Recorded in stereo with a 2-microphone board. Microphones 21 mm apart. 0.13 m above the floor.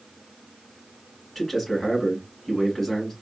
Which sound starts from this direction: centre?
A man speaking, at 1.4 s.